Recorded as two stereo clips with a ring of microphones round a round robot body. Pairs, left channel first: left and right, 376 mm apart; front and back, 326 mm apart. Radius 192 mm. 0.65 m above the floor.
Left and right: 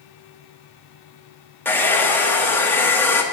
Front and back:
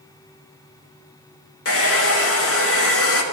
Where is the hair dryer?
10° left, 1.5 m.